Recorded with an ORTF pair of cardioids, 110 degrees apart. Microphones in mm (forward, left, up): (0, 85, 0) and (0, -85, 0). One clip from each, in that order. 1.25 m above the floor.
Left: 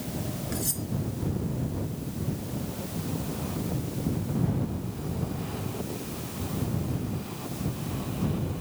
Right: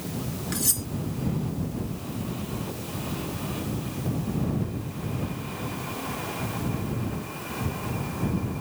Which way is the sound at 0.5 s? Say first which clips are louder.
Right 6 dB; 35° right.